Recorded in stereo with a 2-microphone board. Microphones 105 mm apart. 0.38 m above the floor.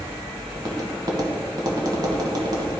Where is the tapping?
45° right (ahead or behind), 1.2 m.